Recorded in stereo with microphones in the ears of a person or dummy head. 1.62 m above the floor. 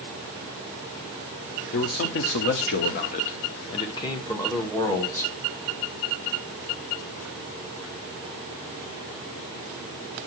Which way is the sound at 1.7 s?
50° left (ahead or behind).